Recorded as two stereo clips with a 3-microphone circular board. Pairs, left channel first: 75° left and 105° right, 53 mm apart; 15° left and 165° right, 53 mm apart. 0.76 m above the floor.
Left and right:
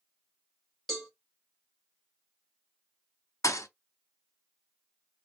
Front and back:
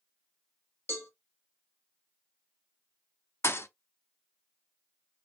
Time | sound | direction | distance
0.9 | a cowbell | 10° right | 1.9 m
3.4 | a thud | 55° left | 0.6 m